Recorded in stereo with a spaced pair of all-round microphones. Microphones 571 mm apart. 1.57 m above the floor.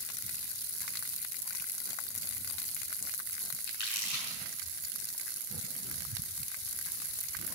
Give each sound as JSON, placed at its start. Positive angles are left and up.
{"t": 3.7, "sound": "crumpling", "side_deg": 70, "distance_m": 6.0}